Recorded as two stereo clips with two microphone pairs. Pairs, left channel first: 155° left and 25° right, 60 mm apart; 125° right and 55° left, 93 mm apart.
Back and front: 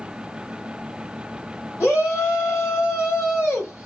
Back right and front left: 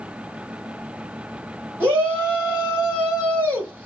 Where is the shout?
115° left, 2.5 m.